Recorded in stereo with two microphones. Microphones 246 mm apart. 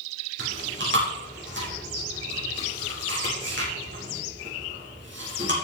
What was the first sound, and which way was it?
Chewing, 50° right (ahead or behind).